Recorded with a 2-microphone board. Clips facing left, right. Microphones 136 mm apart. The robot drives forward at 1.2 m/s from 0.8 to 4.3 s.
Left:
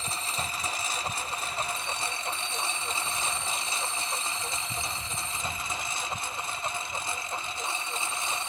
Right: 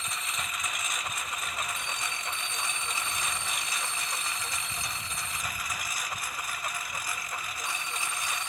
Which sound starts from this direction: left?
A lawn mower, at 0.0 s.